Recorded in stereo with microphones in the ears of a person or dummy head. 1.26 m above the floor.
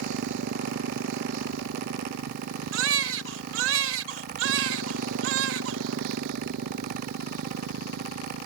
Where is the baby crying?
75° right (ahead or behind).